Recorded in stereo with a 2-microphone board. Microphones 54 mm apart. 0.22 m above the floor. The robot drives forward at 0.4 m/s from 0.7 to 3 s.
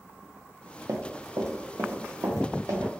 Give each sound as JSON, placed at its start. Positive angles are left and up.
{"t": 0.9, "sound": "running footsteps", "side_deg": -75, "distance_m": 0.5}